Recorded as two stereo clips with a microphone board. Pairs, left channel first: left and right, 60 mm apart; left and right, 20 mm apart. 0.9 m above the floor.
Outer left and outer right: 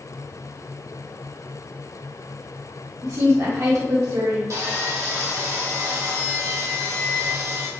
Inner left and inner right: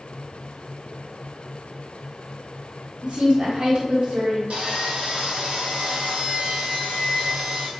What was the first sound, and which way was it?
A woman speaking, 60° right (ahead or behind).